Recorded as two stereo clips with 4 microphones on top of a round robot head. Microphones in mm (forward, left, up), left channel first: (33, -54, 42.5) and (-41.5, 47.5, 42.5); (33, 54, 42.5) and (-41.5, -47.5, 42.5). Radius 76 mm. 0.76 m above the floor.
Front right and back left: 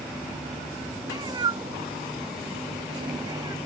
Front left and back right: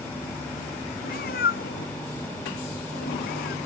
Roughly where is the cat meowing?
Ahead left.